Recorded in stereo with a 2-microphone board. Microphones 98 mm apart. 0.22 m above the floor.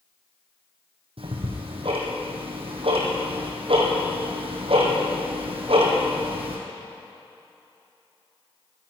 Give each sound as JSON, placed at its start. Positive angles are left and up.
{"t": 1.2, "sound": "ticking", "side_deg": -70, "distance_m": 3.0}